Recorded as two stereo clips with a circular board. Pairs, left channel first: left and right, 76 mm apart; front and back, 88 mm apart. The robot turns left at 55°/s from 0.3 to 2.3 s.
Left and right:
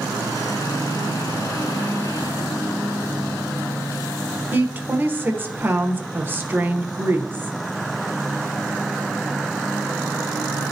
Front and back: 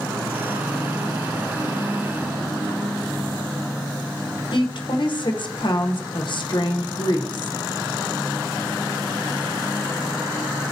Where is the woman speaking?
25° right, 1.1 m.